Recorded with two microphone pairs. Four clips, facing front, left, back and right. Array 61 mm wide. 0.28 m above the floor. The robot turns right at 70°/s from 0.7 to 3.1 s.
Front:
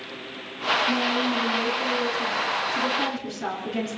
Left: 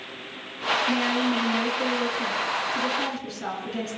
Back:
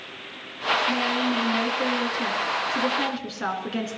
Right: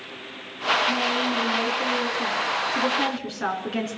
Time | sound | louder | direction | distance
0.9 | a woman speaking | even, even | 75° left | 3.5 m